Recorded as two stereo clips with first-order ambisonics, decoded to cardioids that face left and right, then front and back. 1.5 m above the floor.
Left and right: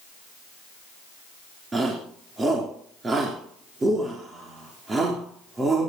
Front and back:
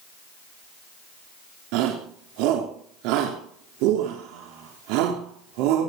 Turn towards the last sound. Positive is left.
turn(degrees=-165)